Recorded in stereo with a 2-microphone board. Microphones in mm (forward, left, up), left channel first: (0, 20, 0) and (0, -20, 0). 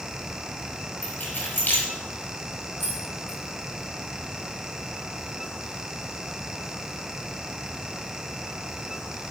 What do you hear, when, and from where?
1.0 s keys jangling: 50° left (ahead or behind), 3.5 m
2.8 s keys jangling: 60° left (ahead or behind), 2.5 m